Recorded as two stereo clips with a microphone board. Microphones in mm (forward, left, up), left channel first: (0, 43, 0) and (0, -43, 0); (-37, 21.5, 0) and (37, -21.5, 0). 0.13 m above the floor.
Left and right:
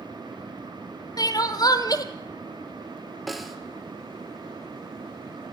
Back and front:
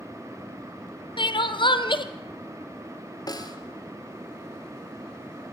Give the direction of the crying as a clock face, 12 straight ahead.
8 o'clock.